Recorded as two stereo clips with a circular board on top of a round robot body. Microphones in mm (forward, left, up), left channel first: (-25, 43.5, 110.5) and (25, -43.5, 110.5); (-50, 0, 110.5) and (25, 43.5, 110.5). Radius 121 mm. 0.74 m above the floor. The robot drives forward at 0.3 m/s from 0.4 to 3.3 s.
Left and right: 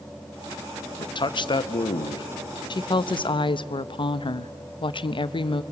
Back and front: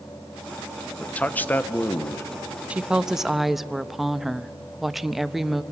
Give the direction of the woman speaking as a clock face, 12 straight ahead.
9 o'clock.